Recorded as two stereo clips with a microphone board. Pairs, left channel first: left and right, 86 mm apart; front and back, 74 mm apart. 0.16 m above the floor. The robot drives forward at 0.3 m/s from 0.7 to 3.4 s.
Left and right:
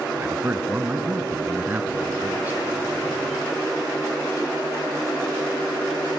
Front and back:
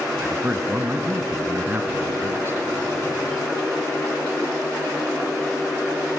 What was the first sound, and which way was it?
A man speaking, 130° right.